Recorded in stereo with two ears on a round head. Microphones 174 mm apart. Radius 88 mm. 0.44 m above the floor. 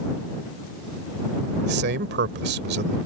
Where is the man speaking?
60° right (ahead or behind).